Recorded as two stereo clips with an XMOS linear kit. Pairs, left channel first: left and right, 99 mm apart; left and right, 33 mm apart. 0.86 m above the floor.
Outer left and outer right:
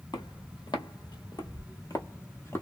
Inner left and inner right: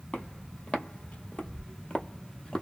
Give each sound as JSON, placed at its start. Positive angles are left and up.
{"t": 0.1, "sound": "footsteps", "side_deg": 45, "distance_m": 1.3}